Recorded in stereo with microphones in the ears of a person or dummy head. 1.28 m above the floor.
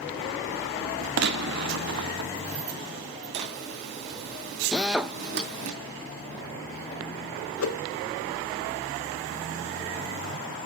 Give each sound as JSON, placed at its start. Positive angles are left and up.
{"t": 1.2, "sound": "a gunshot", "side_deg": -55, "distance_m": 0.5}
{"t": 3.3, "sound": "a zipper", "side_deg": -55, "distance_m": 2.5}
{"t": 4.7, "sound": "a drill", "side_deg": -5, "distance_m": 0.9}
{"t": 7.6, "sound": "a whoosh", "side_deg": 85, "distance_m": 0.6}